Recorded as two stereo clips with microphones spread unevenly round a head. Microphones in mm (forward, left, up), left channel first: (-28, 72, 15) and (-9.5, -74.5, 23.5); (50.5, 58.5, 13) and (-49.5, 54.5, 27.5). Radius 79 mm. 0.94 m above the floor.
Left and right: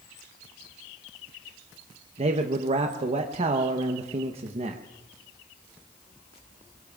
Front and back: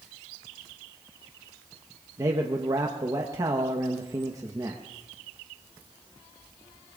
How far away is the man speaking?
About 0.9 m.